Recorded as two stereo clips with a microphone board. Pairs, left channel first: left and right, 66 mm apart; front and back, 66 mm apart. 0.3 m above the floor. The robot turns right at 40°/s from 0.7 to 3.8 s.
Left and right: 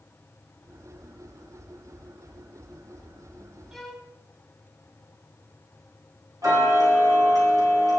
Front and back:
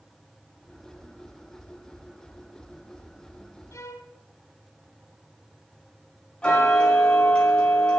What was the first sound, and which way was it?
A violin, 5° right.